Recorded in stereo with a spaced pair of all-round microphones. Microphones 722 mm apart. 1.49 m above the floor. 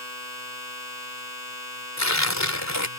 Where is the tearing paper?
20° left (ahead or behind).